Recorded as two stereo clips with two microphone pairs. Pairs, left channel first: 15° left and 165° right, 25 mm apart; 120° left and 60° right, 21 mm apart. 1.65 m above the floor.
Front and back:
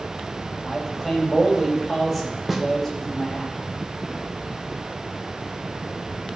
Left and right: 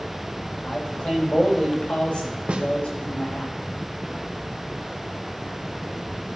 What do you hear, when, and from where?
0.6 s a man speaking: 100° left, 4 m
2.5 s a snare drum: 85° right, 1.0 m